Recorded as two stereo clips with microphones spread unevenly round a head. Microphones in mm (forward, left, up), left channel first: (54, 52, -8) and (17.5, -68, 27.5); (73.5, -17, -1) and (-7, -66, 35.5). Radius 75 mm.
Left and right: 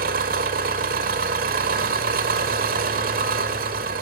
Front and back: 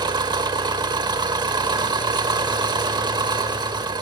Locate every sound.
0.0 s an engine running: 105° right, 2.5 m